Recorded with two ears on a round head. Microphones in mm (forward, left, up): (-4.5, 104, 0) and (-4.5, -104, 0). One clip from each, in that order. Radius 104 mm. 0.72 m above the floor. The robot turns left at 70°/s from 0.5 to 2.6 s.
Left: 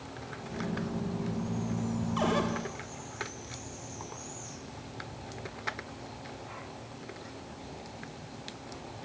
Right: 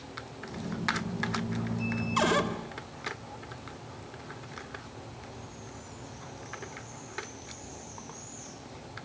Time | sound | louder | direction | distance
2.2 | a cupboard door | right 4 dB | 60° right (ahead or behind) | 2.5 m